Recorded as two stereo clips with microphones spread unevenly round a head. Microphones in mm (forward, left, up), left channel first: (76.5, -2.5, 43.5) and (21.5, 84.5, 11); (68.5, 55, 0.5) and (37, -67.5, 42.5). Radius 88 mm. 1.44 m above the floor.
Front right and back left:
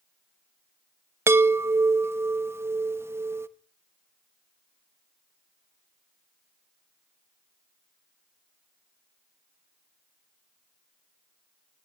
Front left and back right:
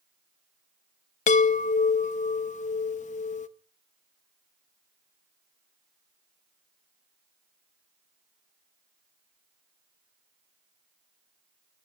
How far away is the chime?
About 0.9 m.